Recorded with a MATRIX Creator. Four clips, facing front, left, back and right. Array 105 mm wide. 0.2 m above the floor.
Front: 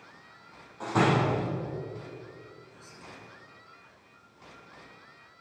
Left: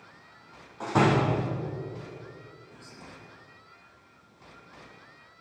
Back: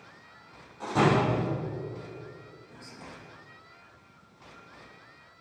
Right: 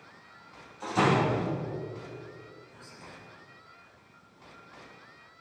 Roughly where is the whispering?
Behind left.